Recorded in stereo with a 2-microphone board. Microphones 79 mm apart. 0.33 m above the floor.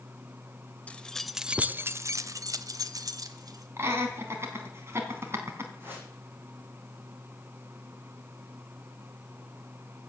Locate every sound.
0.9 s keys jangling: 15° left (ahead or behind), 0.8 m; by 3.7 s 50° right (ahead or behind), 1.7 m
3.8 s laughter: 35° right (ahead or behind), 3.5 m
5.8 s a whoosh: 30° right (ahead or behind), 7.5 m